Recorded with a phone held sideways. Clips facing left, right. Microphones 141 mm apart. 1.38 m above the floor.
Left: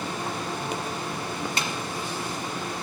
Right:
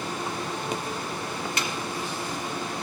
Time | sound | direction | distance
1.6 | a snare drum | 30° left (ahead or behind) | 1.5 m